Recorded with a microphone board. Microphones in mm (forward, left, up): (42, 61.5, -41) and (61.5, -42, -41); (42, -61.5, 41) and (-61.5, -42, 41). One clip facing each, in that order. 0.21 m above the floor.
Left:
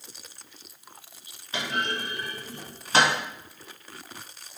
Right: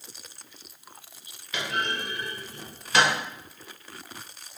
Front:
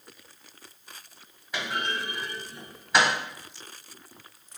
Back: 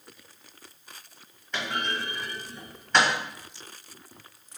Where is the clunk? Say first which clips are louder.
Even, even; 65° left, 1.4 m.